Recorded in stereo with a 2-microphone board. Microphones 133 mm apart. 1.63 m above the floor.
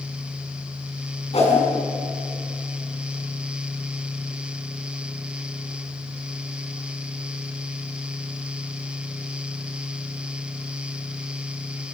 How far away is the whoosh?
About 5.5 m.